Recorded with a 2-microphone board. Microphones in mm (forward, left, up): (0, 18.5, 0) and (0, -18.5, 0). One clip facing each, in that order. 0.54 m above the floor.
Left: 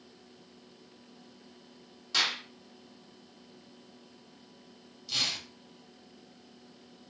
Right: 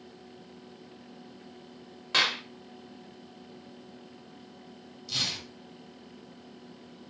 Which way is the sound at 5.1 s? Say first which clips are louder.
Even; 10° left (ahead or behind).